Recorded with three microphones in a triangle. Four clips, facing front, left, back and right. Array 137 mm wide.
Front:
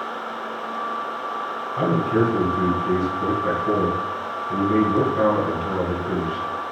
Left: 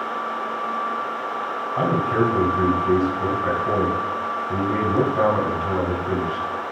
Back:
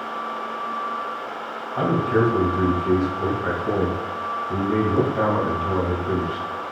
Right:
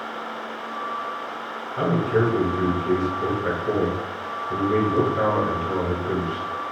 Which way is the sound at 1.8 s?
115° left.